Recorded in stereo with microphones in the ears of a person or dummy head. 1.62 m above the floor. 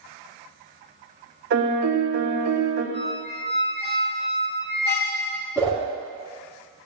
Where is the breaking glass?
No breaking glass in this recording.